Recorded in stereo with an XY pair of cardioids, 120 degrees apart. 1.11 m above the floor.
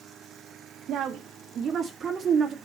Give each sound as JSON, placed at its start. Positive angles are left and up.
{"t": 0.9, "sound": "a woman speaking", "azimuth_deg": -60, "distance_m": 1.6}